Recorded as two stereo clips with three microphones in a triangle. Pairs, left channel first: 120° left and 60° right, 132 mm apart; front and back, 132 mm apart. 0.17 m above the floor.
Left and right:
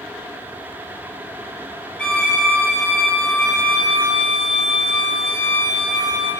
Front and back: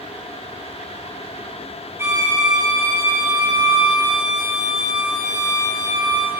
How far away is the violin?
About 1.4 m.